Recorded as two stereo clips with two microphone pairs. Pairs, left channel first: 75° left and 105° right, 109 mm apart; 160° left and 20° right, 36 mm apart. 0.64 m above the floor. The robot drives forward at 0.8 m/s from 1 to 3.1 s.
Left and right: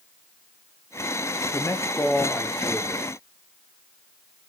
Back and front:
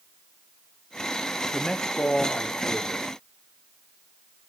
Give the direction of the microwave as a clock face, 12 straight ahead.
No microwave in this recording.